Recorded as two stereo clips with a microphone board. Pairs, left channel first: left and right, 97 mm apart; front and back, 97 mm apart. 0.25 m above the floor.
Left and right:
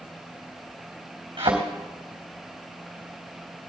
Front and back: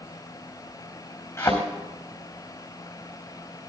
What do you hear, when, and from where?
1.4 s a thud: 60° right, 4 m